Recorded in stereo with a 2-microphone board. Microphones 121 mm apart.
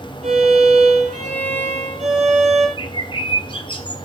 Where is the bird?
40° left (ahead or behind), 1.7 m.